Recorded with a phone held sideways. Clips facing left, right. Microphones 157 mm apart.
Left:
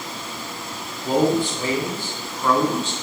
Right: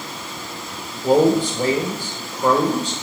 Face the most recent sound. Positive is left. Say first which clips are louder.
# right 4 dB
turn(degrees=-75)  # may be behind; listen again after turning